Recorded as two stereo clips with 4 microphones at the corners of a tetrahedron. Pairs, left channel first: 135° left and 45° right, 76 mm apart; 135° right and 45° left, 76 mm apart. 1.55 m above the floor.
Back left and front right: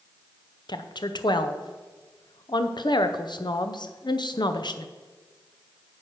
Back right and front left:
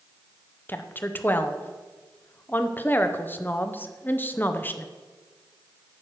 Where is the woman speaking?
160° left, 0.7 m.